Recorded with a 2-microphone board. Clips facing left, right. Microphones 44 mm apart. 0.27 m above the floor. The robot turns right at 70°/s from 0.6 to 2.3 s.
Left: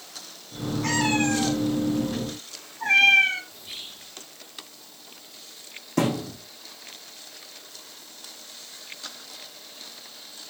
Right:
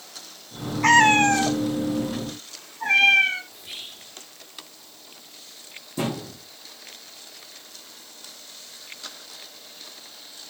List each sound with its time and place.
0.8 s a cat meowing: 60° right (ahead or behind), 1.1 m; by 3.4 s 5° right (ahead or behind), 1.1 m
3.5 s whispering: 15° right (ahead or behind), 4.5 m
6.0 s a thud: 65° left (ahead or behind), 6.5 m